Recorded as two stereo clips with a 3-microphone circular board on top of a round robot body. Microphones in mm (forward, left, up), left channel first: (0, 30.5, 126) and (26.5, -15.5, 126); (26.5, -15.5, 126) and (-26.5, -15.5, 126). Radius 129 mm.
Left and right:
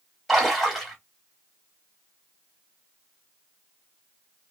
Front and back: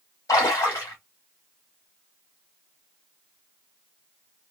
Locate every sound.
0.3 s a splash: 30° left, 1.5 m